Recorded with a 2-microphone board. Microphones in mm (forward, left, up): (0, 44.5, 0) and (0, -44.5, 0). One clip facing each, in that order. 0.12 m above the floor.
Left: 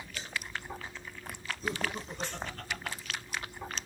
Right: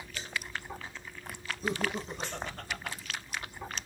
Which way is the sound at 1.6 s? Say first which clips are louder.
Right 3 dB; 20° right (ahead or behind).